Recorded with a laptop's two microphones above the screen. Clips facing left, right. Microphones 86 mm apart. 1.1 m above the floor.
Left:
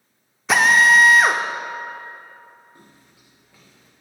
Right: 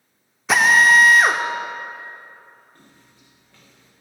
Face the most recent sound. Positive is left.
turn(degrees=10)  # may be behind; listen again after turning